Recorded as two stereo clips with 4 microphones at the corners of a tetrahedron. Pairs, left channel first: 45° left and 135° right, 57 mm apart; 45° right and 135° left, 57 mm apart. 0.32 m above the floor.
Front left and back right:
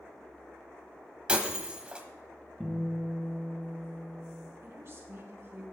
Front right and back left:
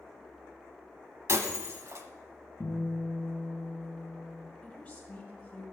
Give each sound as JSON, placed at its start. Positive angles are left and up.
{"t": 1.3, "sound": "breaking glass", "azimuth_deg": 155, "distance_m": 1.1}
{"t": 2.6, "sound": "a guitar", "azimuth_deg": -35, "distance_m": 4.0}
{"t": 4.6, "sound": "a woman speaking", "azimuth_deg": -110, "distance_m": 2.0}